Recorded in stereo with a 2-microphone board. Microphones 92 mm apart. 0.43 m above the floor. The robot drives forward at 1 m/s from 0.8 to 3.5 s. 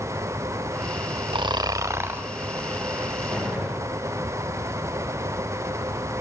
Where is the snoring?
65° right (ahead or behind), 0.5 m; by 2.3 s 20° right (ahead or behind), 1.2 m.